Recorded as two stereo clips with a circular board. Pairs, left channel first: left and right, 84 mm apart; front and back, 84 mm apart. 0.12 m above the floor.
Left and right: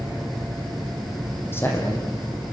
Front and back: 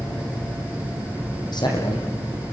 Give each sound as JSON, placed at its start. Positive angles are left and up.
{"t": 1.5, "sound": "a man speaking", "azimuth_deg": 30, "distance_m": 6.5}